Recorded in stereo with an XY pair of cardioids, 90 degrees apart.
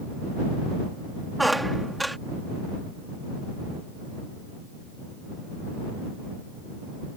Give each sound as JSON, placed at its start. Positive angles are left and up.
{"t": 1.4, "sound": "a squeak", "azimuth_deg": -10}